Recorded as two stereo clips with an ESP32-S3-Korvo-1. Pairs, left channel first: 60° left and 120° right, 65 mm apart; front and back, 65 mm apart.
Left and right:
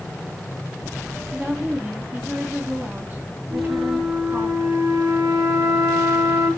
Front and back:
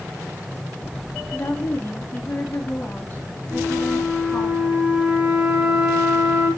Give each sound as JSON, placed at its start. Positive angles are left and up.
{"t": 1.3, "sound": "a woman speaking", "azimuth_deg": -60, "distance_m": 4.0}
{"t": 3.5, "sound": "a flute", "azimuth_deg": -110, "distance_m": 8.0}